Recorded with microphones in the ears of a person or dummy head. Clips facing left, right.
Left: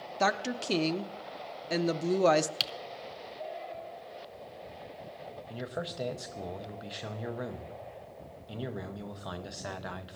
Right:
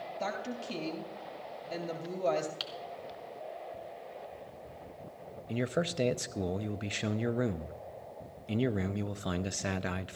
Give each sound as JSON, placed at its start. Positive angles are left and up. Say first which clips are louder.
{"t": 0.2, "sound": "a woman speaking", "louder": "left 8 dB", "side_deg": 75, "distance_m": 0.7}
{"t": 2.6, "sound": "typing on a keyboard", "louder": "left 2 dB", "side_deg": 35, "distance_m": 0.6}
{"t": 5.5, "sound": "a man speaking", "louder": "right 7 dB", "side_deg": -30, "distance_m": 0.5}